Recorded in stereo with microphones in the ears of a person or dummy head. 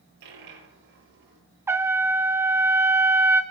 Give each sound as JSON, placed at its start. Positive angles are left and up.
{"t": 0.2, "sound": "a dropped coin", "side_deg": -65, "distance_m": 8.5}
{"t": 1.7, "sound": "a trumpet", "side_deg": -10, "distance_m": 1.4}